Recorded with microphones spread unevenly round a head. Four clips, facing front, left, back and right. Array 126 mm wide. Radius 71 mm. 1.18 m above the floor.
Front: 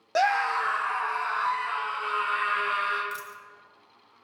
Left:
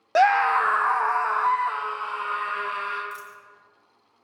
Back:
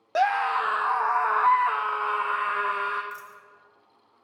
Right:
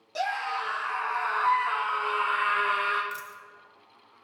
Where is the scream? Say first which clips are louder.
Left 12 dB, back 1 dB; 70° left, 0.7 m; by 3.0 s 170° right, 1.5 m.